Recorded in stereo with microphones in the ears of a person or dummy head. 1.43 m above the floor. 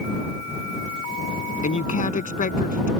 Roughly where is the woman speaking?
Left.